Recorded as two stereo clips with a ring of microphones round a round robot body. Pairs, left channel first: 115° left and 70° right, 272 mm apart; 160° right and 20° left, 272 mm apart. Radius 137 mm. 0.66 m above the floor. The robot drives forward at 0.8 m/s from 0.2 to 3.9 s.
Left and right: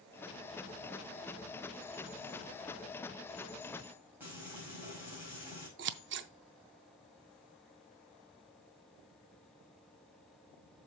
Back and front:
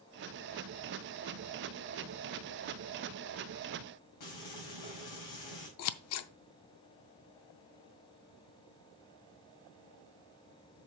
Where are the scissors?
120° right, 0.5 m.